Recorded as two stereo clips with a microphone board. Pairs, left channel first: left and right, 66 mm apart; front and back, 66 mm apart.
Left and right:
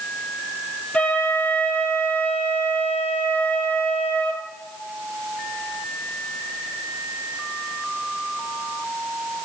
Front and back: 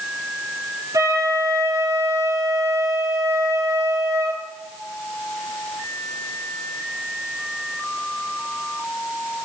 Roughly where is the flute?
Behind.